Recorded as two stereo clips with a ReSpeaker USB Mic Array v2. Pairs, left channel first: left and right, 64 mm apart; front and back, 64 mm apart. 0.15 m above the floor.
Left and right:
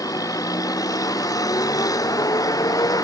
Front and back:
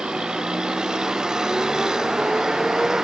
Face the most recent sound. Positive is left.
turn(degrees=100)